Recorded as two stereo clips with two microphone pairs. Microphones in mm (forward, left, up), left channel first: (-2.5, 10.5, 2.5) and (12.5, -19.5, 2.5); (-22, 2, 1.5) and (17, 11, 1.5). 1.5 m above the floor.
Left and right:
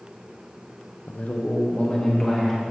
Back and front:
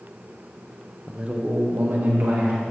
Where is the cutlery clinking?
No cutlery clinking in this recording.